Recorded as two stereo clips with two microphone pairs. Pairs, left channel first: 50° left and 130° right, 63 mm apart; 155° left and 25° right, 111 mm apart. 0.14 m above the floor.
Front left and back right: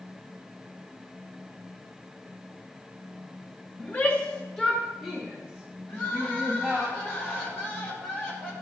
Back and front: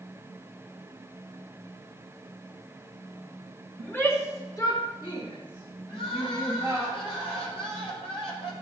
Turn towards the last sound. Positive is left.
turn(degrees=115)